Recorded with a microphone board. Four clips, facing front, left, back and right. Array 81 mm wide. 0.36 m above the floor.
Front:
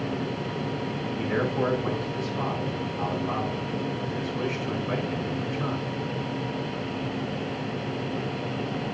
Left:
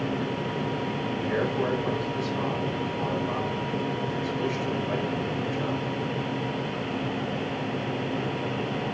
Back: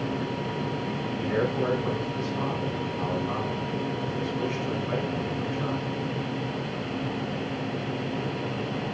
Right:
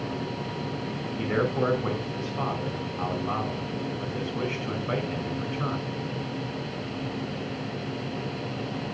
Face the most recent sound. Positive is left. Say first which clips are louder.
# right 2 dB, even
turn(degrees=-80)